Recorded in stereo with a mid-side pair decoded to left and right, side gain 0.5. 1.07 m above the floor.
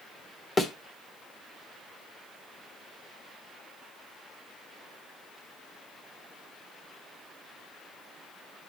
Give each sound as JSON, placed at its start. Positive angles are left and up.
{"t": 0.6, "sound": "a thud", "azimuth_deg": 25, "distance_m": 1.6}